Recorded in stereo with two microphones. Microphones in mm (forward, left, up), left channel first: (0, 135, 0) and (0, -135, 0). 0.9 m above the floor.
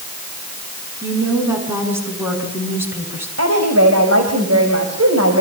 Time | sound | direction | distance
1.0 | a woman speaking | 10° right (ahead or behind) | 8.5 m
3.4 | a woman speaking | 65° right (ahead or behind) | 4 m